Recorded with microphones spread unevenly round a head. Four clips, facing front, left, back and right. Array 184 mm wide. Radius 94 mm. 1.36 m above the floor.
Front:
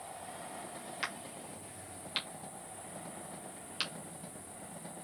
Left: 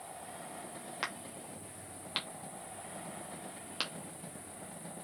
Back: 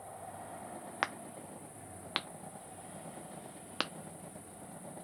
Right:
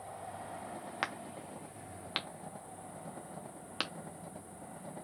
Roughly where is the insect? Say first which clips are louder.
Right 2 dB, front 1 dB; behind left.